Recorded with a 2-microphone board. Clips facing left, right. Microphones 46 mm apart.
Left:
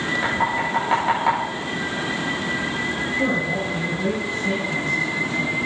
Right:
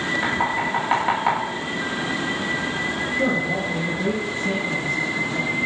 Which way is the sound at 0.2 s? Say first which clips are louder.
Left 1 dB; 5° right (ahead or behind).